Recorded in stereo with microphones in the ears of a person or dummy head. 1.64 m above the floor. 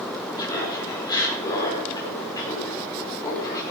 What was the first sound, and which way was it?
Laughter, 25° left (ahead or behind).